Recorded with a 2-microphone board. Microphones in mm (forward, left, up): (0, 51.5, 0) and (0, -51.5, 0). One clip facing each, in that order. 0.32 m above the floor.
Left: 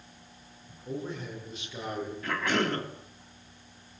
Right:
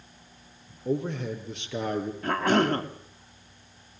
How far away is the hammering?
I don't hear hammering.